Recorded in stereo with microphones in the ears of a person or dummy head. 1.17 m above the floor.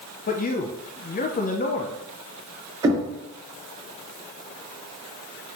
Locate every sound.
0.3 s a man speaking: 35° left (ahead or behind), 0.7 m
2.8 s knocking: 25° right (ahead or behind), 3.5 m